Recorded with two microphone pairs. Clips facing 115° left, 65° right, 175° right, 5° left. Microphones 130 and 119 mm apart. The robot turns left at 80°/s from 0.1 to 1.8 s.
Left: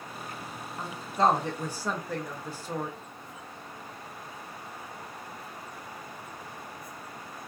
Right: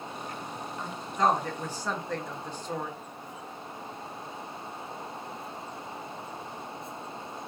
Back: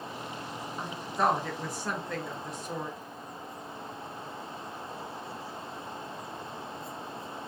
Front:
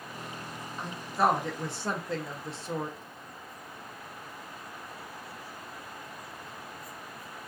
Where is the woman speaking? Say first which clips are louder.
Left 2 dB, front 2 dB; 120° left, 0.6 m; by 3.0 s 40° left, 0.6 m.